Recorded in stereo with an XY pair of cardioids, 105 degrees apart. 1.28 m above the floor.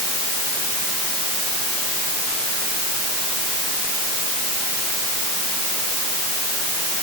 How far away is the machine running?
No machine running in this recording.